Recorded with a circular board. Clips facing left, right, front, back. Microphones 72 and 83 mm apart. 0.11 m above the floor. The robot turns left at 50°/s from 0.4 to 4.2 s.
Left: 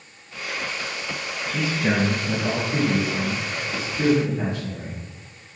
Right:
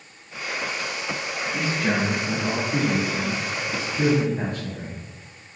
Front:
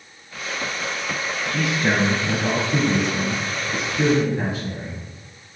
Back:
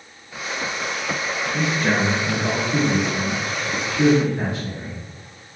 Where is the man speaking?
65° left, 1.6 m; by 5.0 s 70° right, 1.6 m.